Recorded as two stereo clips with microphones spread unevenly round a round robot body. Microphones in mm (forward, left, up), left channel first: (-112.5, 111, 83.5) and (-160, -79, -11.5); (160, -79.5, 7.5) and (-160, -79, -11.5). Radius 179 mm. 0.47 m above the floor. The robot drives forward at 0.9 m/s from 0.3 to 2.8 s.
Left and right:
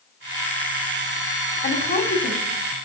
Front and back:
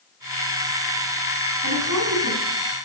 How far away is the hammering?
No hammering in this recording.